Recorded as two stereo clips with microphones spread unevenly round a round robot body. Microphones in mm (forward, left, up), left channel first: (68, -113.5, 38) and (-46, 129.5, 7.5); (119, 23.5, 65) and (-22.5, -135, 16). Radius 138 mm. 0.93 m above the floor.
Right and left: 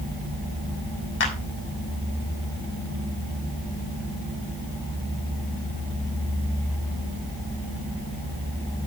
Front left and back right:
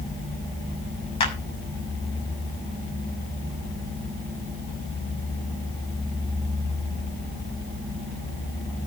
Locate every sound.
1.2 s a clap: 20° right, 6.5 m